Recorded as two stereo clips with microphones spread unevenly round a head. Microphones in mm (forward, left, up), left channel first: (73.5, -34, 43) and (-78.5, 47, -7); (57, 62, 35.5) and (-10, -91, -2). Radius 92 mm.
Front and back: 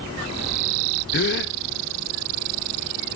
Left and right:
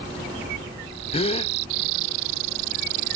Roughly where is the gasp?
Ahead.